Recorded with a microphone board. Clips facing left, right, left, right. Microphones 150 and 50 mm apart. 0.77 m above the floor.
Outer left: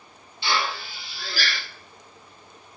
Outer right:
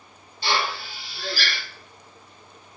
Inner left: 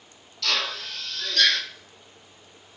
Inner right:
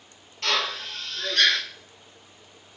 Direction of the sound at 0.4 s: 40° right (ahead or behind).